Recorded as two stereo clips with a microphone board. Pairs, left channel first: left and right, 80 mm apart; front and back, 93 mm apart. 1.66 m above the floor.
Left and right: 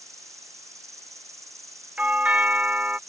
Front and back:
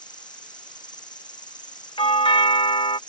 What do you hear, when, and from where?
0.0 s an insect: 40° right
2.0 s a doorbell: 15° right